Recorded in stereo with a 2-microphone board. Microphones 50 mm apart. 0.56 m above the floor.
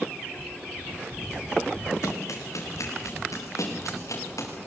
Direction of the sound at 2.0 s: 80° left.